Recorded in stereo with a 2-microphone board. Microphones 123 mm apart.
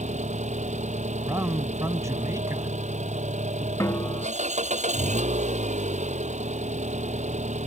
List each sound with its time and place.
0.0 s an engine running: 80° right
1.2 s a man speaking: 25° right (ahead or behind)
3.8 s a snare drum: 25° left (ahead or behind)